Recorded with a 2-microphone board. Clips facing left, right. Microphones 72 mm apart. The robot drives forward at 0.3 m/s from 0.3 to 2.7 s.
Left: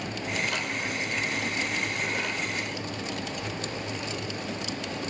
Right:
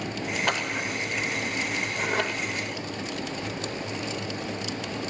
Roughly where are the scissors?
Right.